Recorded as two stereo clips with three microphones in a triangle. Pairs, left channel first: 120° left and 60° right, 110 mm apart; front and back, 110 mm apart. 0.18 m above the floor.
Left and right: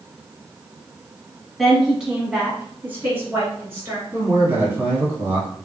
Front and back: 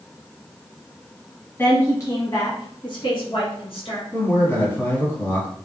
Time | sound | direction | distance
1.6 | a woman speaking | 30° left | 1.1 m
4.1 | a man speaking | 35° right | 1.0 m